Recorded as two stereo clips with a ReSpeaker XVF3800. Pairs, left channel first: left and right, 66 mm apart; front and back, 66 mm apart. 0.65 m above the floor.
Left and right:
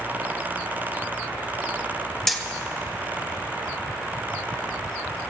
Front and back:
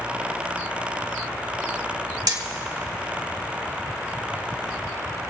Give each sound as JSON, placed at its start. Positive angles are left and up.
{"t": 2.3, "sound": "hammering", "azimuth_deg": 175, "distance_m": 1.3}